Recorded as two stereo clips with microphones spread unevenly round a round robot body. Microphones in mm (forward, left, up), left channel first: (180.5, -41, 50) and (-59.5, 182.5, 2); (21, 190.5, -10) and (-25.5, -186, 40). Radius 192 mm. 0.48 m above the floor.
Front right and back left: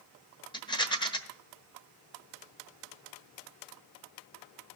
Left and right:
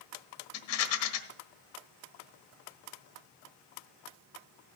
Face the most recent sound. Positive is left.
turn(degrees=35)